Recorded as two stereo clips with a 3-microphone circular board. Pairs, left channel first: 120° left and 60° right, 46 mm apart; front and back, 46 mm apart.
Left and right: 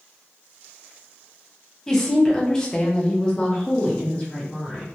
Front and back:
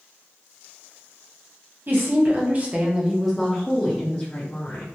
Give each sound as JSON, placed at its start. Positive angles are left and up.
{"t": 1.9, "sound": "a woman speaking", "azimuth_deg": -160, "distance_m": 1.0}